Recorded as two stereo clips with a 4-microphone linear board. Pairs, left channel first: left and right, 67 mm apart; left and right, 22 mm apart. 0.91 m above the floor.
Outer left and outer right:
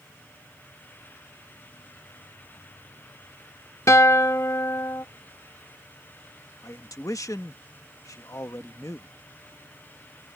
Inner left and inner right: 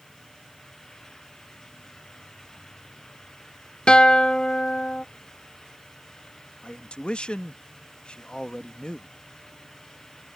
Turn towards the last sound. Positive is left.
turn(degrees=55)  # may be behind; listen again after turning